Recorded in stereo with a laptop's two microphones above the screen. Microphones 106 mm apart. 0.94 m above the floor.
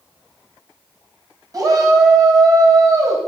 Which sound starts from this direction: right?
A shout, at 1.5 s.